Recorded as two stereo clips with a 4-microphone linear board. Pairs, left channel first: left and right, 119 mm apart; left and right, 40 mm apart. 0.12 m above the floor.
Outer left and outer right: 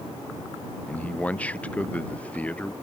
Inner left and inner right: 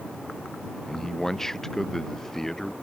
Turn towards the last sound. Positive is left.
turn(degrees=10)  # may be behind; listen again after turning